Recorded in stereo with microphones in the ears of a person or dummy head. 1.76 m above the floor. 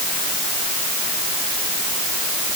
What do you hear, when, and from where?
Only background noise.